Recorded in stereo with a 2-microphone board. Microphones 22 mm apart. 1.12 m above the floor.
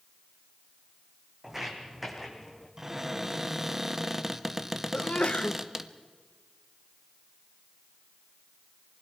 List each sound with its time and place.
1.4 s footsteps: 15° right (ahead or behind), 2.5 m; by 2.7 s 20° left (ahead or behind), 3 m
2.8 s a cupboard door: 20° right (ahead or behind), 0.7 m
4.9 s a sneeze: 60° left (ahead or behind), 0.9 m